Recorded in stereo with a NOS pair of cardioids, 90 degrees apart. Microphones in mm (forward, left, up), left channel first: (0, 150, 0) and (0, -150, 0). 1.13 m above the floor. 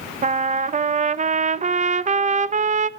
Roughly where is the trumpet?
Ahead right.